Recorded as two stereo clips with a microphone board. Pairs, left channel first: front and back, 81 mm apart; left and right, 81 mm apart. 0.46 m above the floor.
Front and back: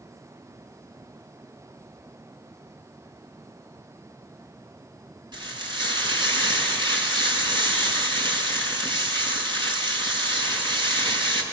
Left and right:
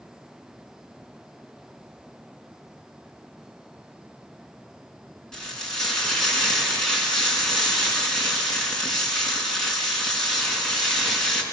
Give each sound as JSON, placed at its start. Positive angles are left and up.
{"t": 5.3, "sound": "frying", "azimuth_deg": 170, "distance_m": 5.0}